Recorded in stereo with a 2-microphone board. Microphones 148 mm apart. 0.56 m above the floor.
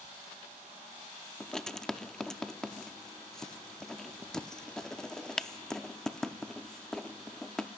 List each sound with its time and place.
1.4 s writing: 5° left (ahead or behind), 0.5 m